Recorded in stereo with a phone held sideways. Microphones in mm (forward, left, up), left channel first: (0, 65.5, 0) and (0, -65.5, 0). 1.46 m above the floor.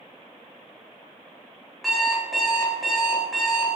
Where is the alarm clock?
Centre (ahead or behind), 0.8 m.